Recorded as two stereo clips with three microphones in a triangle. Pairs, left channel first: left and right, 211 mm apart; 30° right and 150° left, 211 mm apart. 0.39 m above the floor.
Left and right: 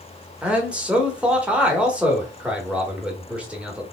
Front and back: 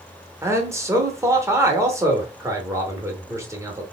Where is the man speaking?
165° right, 0.9 m.